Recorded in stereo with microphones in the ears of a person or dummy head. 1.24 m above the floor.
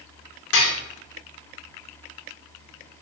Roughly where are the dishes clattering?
Left.